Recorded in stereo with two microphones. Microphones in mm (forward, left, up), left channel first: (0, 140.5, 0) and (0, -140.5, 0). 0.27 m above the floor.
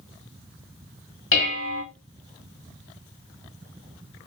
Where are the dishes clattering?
45° left (ahead or behind), 1.0 m.